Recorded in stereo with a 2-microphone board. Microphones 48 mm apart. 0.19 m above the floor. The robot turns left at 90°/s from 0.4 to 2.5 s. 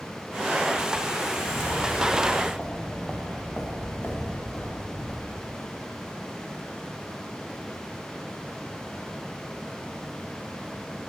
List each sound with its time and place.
1.2 s footsteps: 85° left, 2.5 m; by 5.6 s 55° left (ahead or behind), 2.0 m